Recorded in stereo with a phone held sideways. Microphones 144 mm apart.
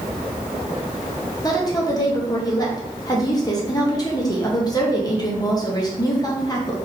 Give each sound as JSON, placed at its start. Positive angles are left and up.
{"t": 1.4, "sound": "a woman speaking", "side_deg": 25, "distance_m": 0.9}